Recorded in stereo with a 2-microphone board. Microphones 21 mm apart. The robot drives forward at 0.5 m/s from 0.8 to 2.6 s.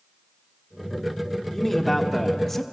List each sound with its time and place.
1.5 s a man speaking: 10° left (ahead or behind), 1.9 m